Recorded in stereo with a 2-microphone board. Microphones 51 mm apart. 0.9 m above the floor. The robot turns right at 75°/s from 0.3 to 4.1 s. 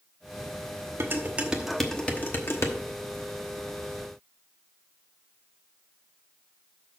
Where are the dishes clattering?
55° right (ahead or behind), 1.1 m; by 2.8 s 75° left (ahead or behind), 1.1 m.